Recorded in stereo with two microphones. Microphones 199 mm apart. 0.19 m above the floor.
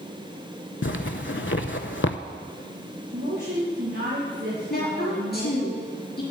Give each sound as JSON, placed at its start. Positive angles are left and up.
{"t": 0.8, "sound": "a zipper", "side_deg": 70, "distance_m": 0.6}
{"t": 3.1, "sound": "a woman speaking", "side_deg": -60, "distance_m": 3.5}
{"t": 4.7, "sound": "a woman speaking", "side_deg": 50, "distance_m": 4.0}